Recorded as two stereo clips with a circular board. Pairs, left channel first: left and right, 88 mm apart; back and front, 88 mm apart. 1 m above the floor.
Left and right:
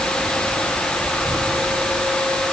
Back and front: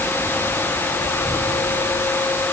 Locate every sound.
Only background noise.